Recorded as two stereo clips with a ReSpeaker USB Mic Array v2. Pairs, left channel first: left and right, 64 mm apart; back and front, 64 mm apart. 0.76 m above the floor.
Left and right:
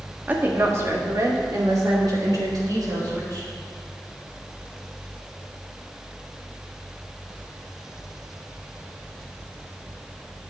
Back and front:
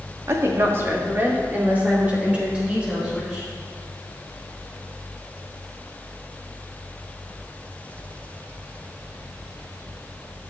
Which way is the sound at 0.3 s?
30° right.